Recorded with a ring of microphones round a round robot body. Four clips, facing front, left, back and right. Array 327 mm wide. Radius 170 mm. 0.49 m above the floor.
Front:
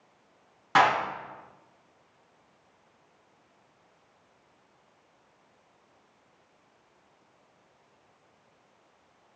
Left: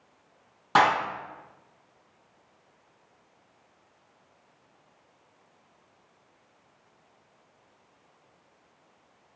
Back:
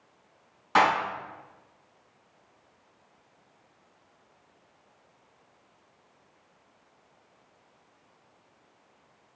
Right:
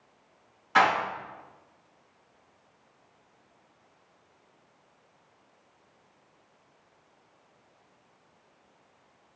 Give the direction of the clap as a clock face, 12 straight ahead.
10 o'clock.